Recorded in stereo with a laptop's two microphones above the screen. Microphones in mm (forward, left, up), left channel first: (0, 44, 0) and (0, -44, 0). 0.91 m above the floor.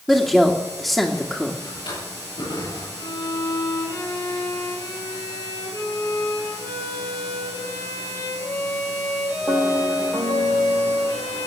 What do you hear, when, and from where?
0.1 s a woman speaking: centre (ahead or behind), 1.9 m
1.6 s a drawer: 70° left (ahead or behind), 9.5 m
3.0 s a violin: 65° left (ahead or behind), 9.5 m